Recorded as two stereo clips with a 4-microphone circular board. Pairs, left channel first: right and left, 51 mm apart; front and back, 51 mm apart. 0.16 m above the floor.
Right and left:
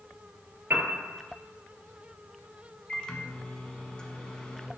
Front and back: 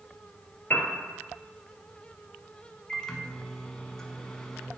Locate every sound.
0.7 s a piano: 50° left, 1.2 m
2.9 s a microwave: 55° right, 0.8 m